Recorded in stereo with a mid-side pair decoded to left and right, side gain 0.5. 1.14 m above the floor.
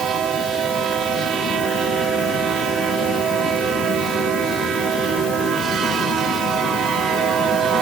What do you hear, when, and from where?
Only background noise.